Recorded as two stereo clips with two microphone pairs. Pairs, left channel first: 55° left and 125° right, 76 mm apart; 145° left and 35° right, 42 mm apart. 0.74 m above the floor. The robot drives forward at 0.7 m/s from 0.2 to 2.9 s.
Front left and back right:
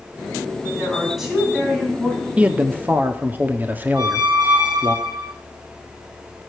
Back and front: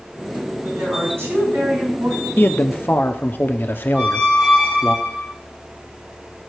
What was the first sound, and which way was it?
A woman speaking, 40° right.